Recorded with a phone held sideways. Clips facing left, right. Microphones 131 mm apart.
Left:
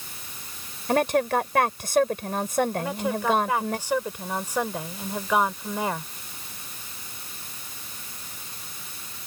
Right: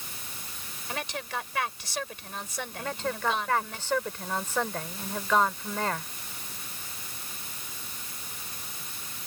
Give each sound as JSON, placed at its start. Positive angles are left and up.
{"t": 0.9, "sound": "a woman speaking", "side_deg": 55}
{"t": 2.8, "sound": "a woman speaking", "side_deg": 10}